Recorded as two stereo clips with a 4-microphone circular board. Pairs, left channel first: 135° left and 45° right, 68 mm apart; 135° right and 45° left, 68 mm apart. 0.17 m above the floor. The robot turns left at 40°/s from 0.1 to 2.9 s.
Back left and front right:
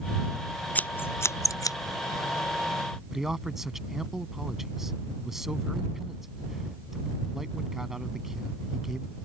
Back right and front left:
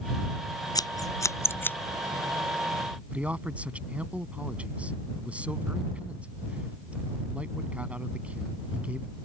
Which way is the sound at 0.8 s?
155° right.